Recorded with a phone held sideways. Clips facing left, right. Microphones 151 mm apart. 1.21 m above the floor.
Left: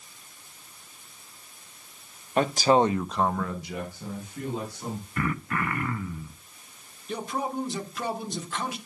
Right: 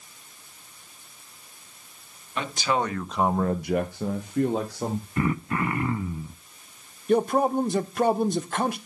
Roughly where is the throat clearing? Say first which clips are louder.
Right 3 dB; right.